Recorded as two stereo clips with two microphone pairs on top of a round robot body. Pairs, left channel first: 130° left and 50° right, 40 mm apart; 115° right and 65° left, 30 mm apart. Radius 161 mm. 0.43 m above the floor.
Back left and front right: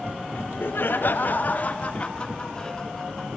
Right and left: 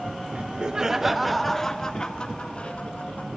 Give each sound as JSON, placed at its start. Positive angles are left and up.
{"t": 0.3, "sound": "laughter", "azimuth_deg": 110, "distance_m": 1.6}